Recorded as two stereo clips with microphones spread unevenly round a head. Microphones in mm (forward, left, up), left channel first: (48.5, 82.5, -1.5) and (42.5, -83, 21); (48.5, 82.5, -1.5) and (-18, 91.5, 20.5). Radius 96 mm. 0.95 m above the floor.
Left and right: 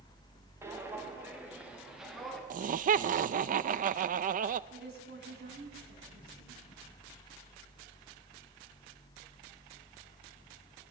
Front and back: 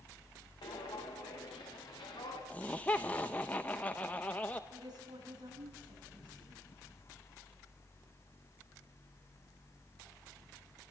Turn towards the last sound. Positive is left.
turn(degrees=-135)